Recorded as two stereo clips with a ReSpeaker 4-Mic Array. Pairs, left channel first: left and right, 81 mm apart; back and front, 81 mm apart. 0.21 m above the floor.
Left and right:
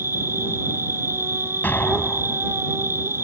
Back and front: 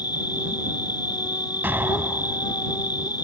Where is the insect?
150° right.